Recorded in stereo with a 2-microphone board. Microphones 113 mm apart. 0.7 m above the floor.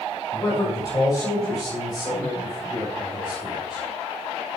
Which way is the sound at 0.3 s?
30° left (ahead or behind).